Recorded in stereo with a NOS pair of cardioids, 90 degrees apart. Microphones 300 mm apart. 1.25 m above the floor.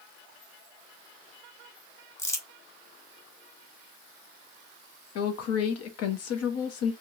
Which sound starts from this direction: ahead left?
A woman speaking, at 5.2 s.